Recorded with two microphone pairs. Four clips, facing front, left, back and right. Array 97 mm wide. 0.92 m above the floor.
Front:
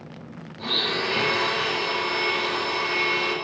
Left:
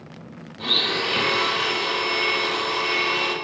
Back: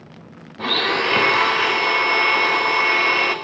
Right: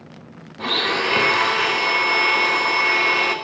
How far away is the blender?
About 1.0 m.